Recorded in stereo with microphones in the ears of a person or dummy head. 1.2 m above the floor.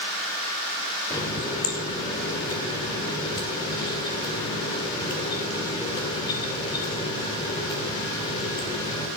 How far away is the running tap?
About 2.5 m.